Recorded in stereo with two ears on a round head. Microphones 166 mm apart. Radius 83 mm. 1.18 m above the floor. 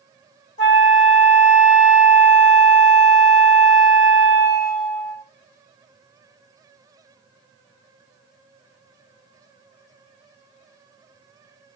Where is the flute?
65° left (ahead or behind), 1.0 m.